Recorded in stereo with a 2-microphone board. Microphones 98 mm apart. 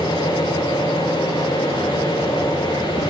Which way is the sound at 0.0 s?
50° left (ahead or behind).